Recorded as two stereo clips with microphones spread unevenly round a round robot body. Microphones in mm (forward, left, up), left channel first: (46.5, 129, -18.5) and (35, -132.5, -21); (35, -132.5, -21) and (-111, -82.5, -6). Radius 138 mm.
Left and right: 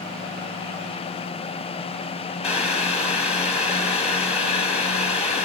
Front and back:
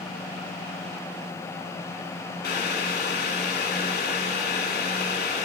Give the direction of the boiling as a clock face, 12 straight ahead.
11 o'clock.